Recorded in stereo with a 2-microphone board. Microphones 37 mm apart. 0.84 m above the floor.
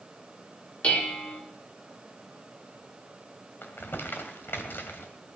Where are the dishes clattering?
35° left (ahead or behind), 2 m.